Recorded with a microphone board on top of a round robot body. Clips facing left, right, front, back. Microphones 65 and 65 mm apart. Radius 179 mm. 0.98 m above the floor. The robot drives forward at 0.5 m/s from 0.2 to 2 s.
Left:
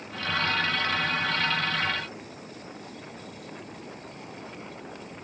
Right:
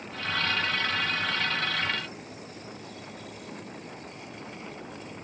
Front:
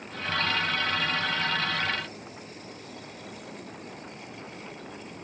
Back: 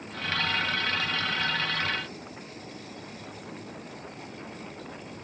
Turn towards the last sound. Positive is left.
No sound to turn to.